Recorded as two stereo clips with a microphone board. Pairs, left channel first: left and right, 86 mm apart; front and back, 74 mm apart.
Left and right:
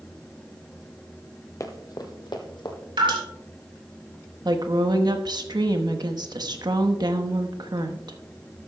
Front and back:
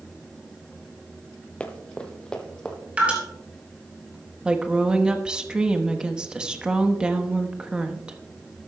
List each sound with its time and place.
1.6 s running footsteps: 65° left, 1.0 m; by 2.8 s 75° left, 1.8 m
3.0 s dripping: 110° right, 3 m
4.5 s a woman speaking: 105° right, 1.1 m